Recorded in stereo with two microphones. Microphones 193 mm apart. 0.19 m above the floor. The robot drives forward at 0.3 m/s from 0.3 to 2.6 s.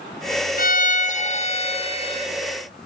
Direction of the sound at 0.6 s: 45° left (ahead or behind).